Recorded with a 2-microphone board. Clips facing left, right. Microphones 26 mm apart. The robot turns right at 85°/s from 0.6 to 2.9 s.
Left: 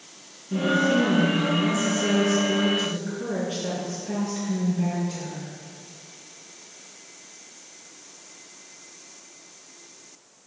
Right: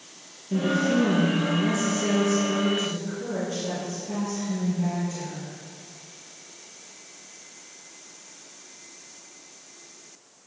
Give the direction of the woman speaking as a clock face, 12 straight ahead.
5 o'clock.